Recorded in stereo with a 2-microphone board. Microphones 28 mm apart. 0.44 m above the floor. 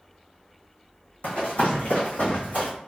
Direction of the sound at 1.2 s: 60° left (ahead or behind).